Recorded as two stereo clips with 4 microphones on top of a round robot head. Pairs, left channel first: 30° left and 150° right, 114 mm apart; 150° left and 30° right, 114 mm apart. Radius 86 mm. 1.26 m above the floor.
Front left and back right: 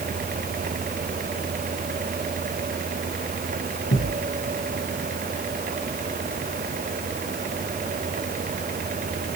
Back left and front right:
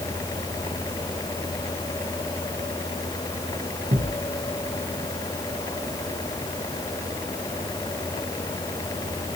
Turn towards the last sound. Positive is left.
turn(degrees=20)